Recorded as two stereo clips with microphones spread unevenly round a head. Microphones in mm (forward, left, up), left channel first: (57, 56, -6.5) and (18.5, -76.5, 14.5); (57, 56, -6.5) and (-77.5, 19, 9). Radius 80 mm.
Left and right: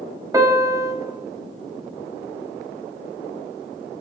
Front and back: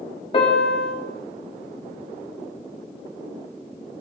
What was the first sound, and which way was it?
A piano, 45° right.